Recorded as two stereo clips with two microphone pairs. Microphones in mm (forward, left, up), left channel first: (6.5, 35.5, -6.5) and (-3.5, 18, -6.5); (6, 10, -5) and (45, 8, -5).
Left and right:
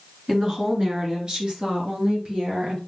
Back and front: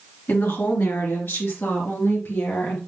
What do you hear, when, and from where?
0.3 s a woman speaking: 175° right, 2.5 m; by 2.8 s 160° right, 4 m